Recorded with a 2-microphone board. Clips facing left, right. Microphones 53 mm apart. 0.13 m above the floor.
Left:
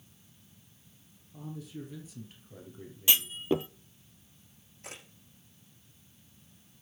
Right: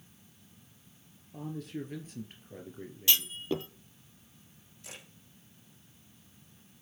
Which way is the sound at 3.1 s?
20° left (ahead or behind).